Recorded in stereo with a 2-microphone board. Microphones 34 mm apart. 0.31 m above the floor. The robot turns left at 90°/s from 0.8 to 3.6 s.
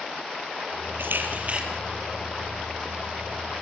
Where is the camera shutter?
95° right, 6 m; by 1.6 s 155° right, 6 m.